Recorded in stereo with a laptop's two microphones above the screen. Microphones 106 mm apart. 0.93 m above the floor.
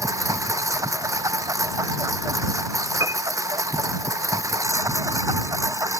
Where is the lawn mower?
30° right (ahead or behind).